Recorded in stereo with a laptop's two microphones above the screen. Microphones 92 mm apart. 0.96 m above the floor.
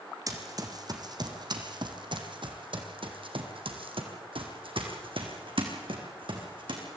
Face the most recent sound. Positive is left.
turn(degrees=-60)  # may be behind; listen again after turning